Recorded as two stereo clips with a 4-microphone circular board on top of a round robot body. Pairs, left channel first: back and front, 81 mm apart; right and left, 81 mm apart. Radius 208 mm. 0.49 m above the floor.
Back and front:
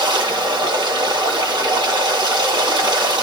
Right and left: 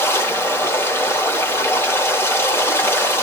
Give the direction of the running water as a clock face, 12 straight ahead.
1 o'clock.